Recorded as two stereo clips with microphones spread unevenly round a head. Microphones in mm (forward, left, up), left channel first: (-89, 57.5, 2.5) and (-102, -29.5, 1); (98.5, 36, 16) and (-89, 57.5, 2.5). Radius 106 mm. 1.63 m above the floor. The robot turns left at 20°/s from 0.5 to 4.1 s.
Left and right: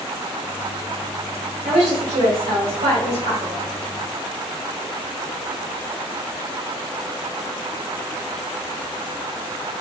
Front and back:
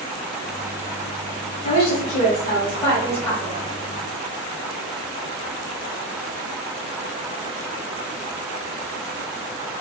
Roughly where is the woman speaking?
Ahead right.